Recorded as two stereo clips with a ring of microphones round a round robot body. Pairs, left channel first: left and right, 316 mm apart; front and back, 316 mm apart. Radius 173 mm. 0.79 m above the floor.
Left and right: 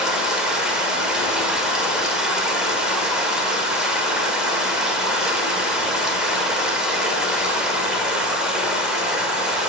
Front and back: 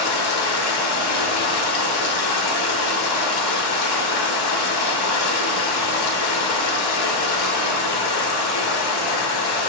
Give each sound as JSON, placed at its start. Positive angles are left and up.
{"t": 0.0, "sound": "running water", "azimuth_deg": 0, "distance_m": 1.3}